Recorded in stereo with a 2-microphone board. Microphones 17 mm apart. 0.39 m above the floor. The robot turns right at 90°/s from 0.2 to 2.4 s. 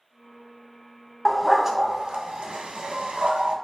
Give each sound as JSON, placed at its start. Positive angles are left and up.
{"t": 1.2, "sound": "a dog barking", "side_deg": 15, "distance_m": 0.5}